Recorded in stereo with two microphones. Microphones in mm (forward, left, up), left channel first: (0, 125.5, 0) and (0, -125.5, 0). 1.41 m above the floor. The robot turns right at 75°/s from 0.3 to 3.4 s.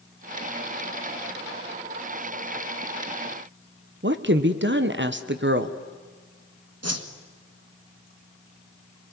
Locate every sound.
4.0 s a woman speaking: 45° right (ahead or behind), 1.2 m
6.8 s a whoosh: 65° right (ahead or behind), 1.7 m